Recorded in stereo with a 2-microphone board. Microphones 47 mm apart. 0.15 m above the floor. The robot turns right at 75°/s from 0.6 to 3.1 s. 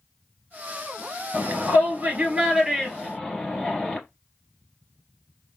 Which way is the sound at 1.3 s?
45° right (ahead or behind).